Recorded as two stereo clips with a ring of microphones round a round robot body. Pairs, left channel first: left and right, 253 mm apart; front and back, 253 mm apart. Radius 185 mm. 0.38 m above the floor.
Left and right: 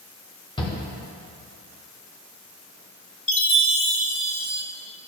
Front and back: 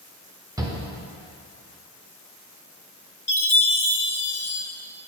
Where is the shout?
130° left, 0.9 m.